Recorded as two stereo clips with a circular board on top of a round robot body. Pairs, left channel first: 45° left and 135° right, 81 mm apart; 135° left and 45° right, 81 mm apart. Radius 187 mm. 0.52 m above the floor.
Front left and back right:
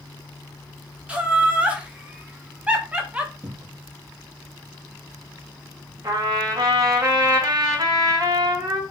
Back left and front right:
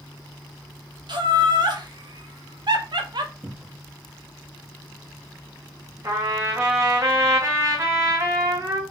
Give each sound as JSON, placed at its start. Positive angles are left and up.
{"t": 1.1, "sound": "laughter", "azimuth_deg": -60, "distance_m": 2.0}
{"t": 3.4, "sound": "a cupboard door", "azimuth_deg": -115, "distance_m": 1.2}
{"t": 6.0, "sound": "a trumpet", "azimuth_deg": -95, "distance_m": 2.5}